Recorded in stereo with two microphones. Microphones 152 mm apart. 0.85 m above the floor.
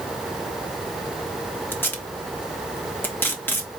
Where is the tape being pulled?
15° left (ahead or behind), 1.1 m.